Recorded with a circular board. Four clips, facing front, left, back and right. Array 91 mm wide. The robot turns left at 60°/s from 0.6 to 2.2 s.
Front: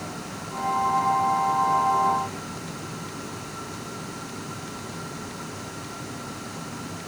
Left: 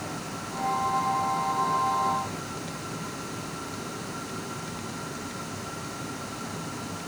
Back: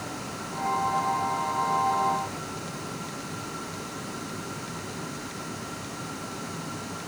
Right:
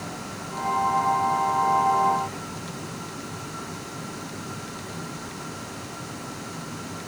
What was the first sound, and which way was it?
Only background noise.